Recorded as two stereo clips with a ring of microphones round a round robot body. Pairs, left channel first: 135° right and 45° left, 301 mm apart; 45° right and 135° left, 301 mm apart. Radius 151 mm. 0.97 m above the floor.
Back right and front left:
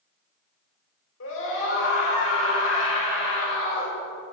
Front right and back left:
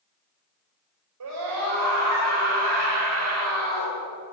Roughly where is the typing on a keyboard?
I don't hear typing on a keyboard.